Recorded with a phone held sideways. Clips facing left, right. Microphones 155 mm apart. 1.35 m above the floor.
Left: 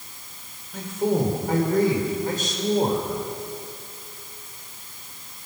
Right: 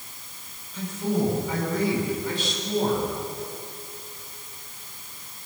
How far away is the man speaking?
About 5.5 m.